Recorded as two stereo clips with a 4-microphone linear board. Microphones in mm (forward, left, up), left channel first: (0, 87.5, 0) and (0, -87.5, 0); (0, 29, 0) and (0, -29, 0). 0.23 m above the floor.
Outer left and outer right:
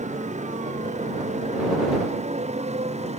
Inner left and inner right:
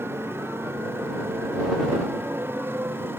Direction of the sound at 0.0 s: 40° right (ahead or behind).